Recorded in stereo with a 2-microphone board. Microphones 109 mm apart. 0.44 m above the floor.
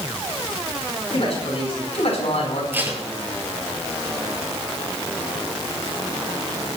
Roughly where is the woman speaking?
Left.